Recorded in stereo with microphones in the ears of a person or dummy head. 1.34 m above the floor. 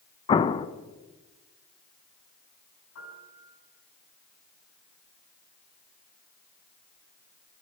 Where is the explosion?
25° left (ahead or behind), 0.8 m.